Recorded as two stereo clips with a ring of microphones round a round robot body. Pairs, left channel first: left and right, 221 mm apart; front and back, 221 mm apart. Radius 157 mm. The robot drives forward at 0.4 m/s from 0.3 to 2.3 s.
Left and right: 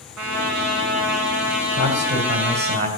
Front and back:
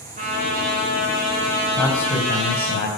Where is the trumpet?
115° right, 2 m; by 2.8 s 130° right, 2.5 m.